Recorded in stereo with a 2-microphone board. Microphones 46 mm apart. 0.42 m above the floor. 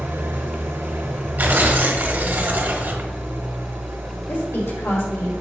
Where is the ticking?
No ticking in this recording.